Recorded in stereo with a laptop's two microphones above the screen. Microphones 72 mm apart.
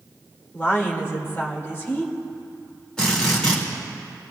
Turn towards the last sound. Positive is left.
turn(degrees=10)  # may be behind; listen again after turning